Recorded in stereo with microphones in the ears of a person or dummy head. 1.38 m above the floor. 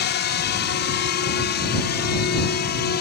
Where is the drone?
55° left (ahead or behind); by 3.0 s 50° left (ahead or behind).